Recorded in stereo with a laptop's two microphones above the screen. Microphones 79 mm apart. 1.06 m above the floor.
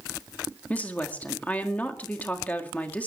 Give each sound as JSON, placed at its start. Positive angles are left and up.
{"t": 0.7, "sound": "a woman speaking", "side_deg": 20, "distance_m": 1.8}